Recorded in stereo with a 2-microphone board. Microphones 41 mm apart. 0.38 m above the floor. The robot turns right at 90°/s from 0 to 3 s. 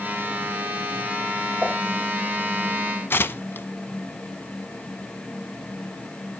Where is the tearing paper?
65° left (ahead or behind), 0.7 m.